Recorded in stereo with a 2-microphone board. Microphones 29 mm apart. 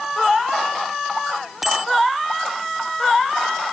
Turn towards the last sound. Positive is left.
turn(degrees=-10)  # may be behind; listen again after turning